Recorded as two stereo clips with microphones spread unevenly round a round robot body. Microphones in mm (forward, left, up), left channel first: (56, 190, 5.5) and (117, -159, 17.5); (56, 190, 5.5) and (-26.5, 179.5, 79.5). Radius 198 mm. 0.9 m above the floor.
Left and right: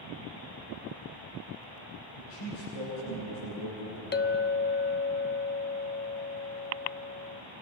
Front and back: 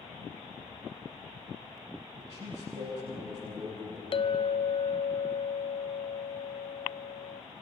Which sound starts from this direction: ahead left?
A clink, at 4.1 s.